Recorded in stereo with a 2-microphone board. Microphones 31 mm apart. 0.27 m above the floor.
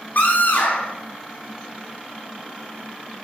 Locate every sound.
0.1 s a scream: 60° left (ahead or behind), 3.5 m